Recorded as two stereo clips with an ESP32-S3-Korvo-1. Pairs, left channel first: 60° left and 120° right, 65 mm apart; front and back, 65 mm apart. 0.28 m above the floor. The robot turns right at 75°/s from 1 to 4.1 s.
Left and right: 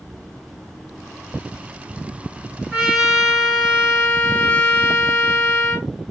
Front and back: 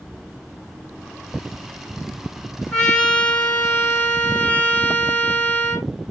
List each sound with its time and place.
2.7 s a trumpet: 70° right, 1.4 m; by 5.9 s 35° left, 1.4 m